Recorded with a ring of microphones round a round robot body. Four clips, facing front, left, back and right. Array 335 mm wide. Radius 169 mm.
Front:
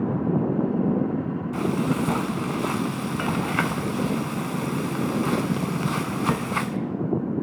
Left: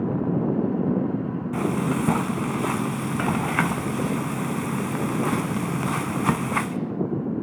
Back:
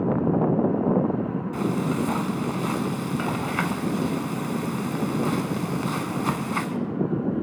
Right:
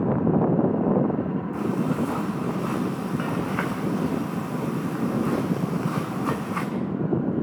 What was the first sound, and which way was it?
Frying, 80° left.